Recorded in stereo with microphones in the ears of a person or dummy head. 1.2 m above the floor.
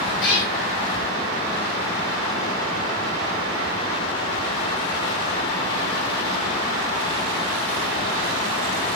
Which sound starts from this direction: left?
A cat meowing, at 0.2 s.